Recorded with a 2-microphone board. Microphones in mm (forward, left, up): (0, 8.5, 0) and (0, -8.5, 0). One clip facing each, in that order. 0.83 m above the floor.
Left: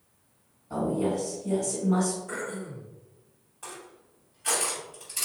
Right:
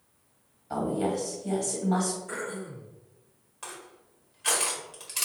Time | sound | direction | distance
0.7 | a woman speaking | 75° right (ahead or behind) | 2.0 m
2.3 | throat clearing | 5° right (ahead or behind) | 1.3 m
3.6 | crushing | 50° right (ahead or behind) | 1.4 m